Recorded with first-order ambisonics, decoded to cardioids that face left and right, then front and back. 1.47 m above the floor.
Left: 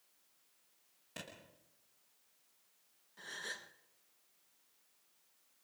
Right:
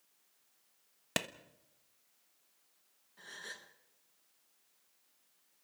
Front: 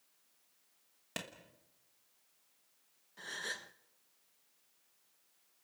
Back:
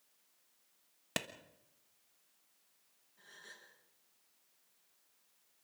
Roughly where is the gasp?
Ahead.